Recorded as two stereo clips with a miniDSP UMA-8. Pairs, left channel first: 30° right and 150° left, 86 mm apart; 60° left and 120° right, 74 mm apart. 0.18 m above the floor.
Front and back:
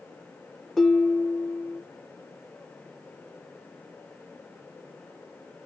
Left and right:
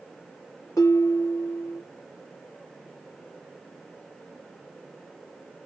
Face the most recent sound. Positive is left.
turn(degrees=55)